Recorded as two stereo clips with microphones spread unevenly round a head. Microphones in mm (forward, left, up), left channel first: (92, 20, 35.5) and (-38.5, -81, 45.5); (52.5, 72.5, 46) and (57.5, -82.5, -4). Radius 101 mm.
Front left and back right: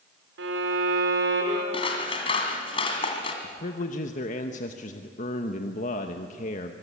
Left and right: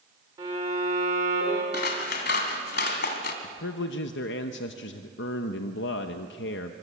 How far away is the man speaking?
About 1.0 m.